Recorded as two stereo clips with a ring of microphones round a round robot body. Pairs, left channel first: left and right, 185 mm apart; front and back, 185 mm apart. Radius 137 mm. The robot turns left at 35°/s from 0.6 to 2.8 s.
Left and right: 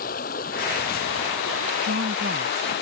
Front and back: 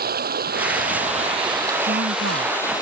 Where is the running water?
150° left; by 2.8 s 70° left.